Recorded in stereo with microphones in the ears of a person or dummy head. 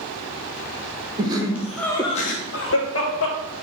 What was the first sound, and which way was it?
Laughter, 25° right (ahead or behind).